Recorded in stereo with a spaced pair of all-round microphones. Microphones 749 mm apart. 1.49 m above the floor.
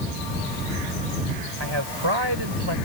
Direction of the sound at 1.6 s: 35° right (ahead or behind).